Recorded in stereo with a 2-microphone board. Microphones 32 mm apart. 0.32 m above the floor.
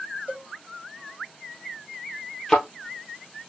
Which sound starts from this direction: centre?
A thud, at 2.5 s.